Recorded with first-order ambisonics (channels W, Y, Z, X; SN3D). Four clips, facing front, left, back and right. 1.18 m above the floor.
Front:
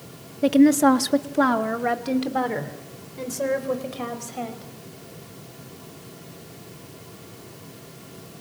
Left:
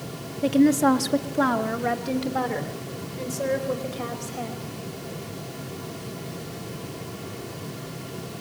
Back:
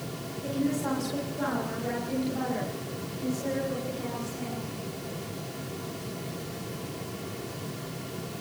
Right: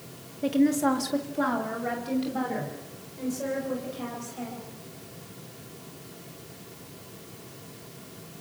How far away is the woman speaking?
About 1.1 m.